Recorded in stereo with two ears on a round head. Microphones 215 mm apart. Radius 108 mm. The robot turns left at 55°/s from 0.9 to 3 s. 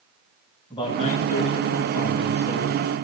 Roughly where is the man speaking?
Behind.